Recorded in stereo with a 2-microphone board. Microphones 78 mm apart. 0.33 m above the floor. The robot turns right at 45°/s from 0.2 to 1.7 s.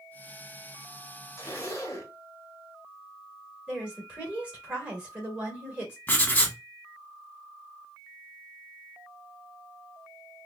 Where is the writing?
25° left (ahead or behind), 0.7 m.